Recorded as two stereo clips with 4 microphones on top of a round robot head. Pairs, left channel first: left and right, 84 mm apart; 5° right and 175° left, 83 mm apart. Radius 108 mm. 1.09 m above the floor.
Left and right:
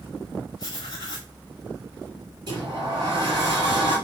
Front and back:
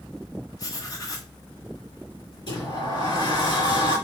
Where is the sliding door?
45° right, 5 m.